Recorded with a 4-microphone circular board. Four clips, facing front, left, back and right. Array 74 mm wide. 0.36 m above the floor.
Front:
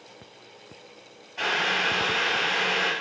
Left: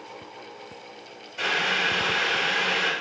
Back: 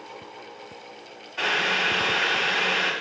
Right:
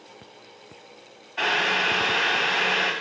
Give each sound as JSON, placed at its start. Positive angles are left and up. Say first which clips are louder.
{"t": 1.4, "sound": "boiling", "louder": "right 2 dB, back 1 dB", "azimuth_deg": -105, "distance_m": 0.9}